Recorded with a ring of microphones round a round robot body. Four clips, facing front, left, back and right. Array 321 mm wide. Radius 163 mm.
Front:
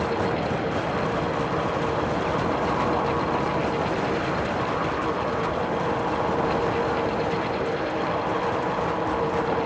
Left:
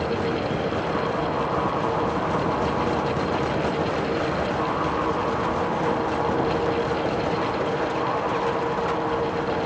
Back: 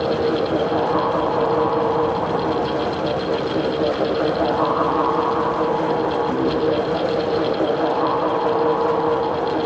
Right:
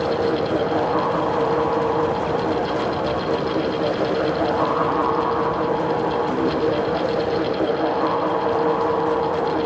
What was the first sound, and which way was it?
Only background noise.